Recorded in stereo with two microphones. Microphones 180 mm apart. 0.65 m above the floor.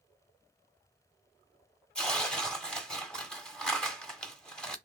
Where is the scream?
No scream in this recording.